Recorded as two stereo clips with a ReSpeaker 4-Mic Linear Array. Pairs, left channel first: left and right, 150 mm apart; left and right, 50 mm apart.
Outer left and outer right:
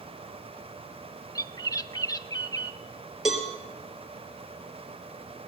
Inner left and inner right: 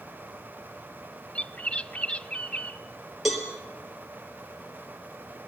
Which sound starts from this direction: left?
A bird, at 1.4 s.